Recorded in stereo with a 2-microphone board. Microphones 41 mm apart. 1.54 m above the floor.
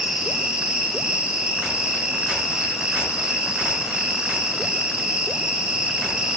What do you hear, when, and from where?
0.0 s an insect: 30° right (ahead or behind), 4 m